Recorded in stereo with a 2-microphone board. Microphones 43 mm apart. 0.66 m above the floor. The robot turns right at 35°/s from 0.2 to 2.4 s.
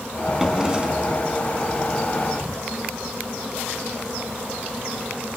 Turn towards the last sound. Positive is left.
turn(degrees=-100)